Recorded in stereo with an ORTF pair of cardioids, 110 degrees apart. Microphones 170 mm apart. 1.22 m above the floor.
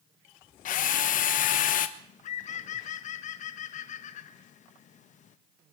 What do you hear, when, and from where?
0.7 s a drill: 60° left, 1.2 m
2.0 s a bird: 50° left, 1.1 m